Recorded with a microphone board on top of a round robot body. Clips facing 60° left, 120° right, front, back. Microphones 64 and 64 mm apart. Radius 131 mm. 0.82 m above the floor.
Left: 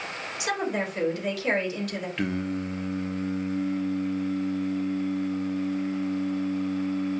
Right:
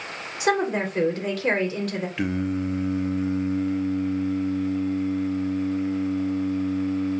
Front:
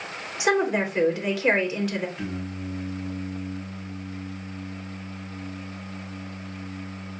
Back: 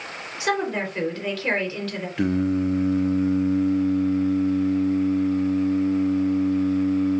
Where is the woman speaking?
75° right, 3 m.